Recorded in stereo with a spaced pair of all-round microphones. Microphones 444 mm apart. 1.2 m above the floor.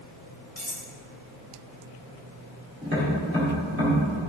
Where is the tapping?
25° right (ahead or behind), 2.5 m.